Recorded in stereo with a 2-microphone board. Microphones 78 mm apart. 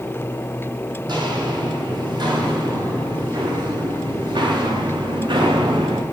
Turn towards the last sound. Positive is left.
turn(degrees=-75)  # may be behind; listen again after turning